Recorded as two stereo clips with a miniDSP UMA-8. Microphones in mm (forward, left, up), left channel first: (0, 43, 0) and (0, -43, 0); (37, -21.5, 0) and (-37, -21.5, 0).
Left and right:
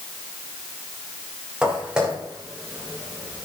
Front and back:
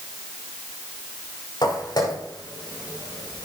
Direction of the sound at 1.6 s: 10° right.